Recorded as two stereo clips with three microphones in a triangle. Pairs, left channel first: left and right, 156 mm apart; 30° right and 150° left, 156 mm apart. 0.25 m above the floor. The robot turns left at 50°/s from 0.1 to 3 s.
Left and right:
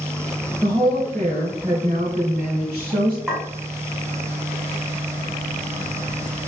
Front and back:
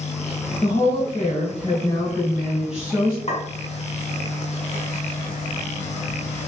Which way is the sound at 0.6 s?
20° right.